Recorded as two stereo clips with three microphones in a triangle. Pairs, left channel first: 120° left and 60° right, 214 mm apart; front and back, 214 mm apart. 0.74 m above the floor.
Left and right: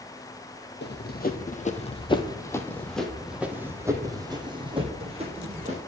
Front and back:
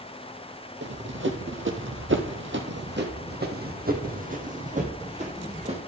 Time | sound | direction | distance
0.8 | running footsteps | 155° left | 1.5 m